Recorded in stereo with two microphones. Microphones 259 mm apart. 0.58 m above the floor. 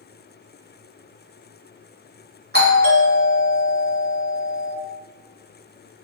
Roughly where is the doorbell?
Right.